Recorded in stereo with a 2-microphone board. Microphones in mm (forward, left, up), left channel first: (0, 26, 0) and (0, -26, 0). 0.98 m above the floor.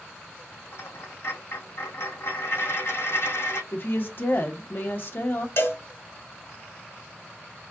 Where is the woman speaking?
50° left (ahead or behind), 1.2 m.